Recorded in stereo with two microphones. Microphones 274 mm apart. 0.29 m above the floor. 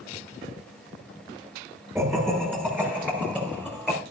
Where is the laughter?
10° right (ahead or behind), 6 m; by 4.0 s centre (ahead or behind), 5 m.